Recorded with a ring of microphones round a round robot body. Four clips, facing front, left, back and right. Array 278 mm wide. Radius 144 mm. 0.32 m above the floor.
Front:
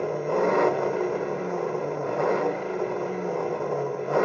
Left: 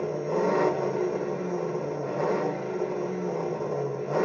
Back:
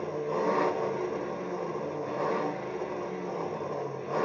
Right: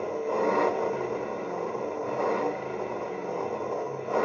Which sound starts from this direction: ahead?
An engine running, at 0.0 s.